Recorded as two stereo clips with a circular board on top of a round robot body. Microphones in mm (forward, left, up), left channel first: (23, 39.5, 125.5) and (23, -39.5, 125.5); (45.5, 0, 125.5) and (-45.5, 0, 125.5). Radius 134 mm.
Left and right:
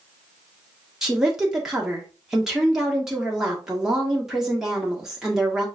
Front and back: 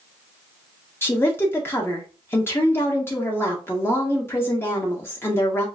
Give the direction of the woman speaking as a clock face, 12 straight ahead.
12 o'clock.